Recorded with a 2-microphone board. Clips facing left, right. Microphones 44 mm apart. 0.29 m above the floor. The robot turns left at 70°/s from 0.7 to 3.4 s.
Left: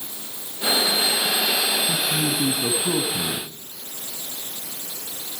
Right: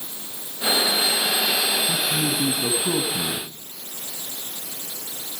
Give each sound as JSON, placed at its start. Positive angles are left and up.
{"t": 1.9, "sound": "a man speaking", "azimuth_deg": 70, "distance_m": 2.0}